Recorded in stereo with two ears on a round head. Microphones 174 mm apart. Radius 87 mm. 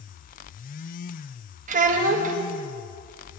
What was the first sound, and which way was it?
A child speaking, 40° right (ahead or behind).